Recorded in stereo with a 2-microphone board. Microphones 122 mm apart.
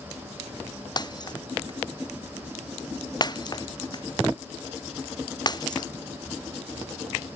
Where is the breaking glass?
35° left (ahead or behind).